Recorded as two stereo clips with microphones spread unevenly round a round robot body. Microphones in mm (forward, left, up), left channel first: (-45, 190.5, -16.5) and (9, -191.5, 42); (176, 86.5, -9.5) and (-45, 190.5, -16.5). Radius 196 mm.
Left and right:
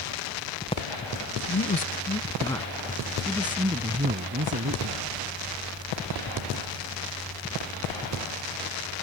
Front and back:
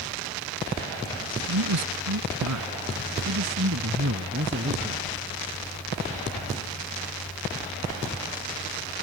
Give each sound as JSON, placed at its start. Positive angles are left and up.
{"t": 1.5, "sound": "a man speaking", "azimuth_deg": 165}